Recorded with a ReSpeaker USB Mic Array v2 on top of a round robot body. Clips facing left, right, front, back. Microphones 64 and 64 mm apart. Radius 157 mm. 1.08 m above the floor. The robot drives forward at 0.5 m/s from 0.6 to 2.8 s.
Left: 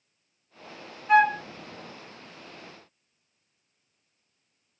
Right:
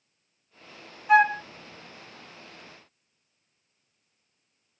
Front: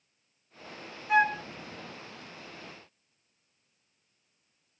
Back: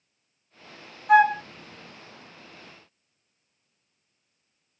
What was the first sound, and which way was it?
A flute, 170° right.